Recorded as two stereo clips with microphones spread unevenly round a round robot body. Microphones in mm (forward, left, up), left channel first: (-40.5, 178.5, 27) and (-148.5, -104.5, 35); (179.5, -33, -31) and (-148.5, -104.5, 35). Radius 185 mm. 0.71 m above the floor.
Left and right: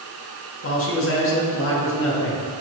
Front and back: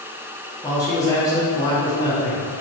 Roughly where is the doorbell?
No doorbell in this recording.